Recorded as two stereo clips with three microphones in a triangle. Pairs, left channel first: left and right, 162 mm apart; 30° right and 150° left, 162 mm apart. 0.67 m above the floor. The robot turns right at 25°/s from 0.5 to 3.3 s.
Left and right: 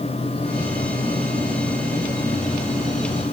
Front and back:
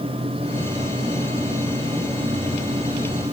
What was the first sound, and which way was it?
Only background noise.